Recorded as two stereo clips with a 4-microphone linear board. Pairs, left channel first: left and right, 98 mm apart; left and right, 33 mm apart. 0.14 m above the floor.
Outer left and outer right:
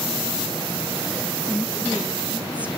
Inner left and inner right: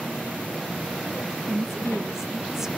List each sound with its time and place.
1.5 s a woman speaking: 15° right (ahead or behind), 1.1 m